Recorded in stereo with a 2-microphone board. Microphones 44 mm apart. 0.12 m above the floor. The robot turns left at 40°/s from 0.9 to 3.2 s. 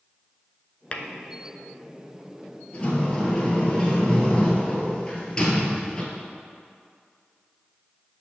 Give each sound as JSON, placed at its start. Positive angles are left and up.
{"t": 0.9, "sound": "tapping", "side_deg": 35, "distance_m": 0.6}
{"t": 2.7, "sound": "a sliding door", "side_deg": 35, "distance_m": 1.4}